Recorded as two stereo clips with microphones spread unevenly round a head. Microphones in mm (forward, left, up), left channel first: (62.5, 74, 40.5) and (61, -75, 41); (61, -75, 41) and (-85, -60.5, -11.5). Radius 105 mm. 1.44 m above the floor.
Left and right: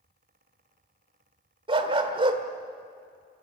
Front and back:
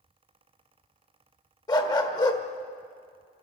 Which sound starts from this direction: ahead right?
A dog barking, at 1.7 s.